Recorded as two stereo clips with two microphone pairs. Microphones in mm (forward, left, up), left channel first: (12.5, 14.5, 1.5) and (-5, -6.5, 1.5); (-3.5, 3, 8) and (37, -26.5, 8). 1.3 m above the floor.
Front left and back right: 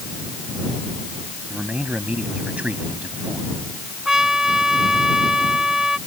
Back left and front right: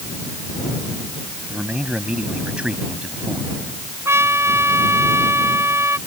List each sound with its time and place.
1.5 s a man speaking: 100° right
4.0 s a trumpet: 60° right